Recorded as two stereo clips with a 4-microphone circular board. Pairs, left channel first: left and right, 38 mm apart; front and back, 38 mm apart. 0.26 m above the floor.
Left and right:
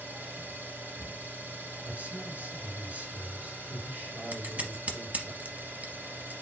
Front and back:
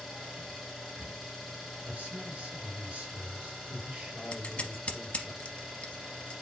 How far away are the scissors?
About 1.0 m.